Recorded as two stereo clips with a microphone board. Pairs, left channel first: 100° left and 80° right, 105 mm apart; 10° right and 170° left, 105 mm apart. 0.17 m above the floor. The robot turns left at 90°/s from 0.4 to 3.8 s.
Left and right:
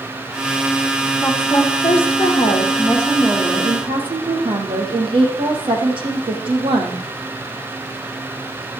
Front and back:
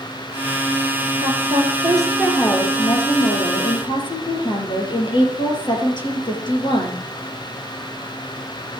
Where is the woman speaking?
175° right, 5.5 m; by 7.0 s 50° right, 5.5 m.